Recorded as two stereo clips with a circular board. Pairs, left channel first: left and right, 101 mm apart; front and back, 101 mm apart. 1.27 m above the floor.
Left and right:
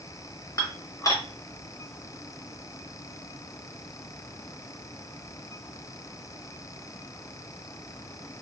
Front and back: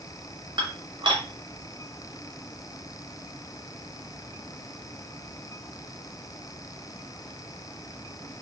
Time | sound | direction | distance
0.6 | dishes clattering | 145° left | 0.8 m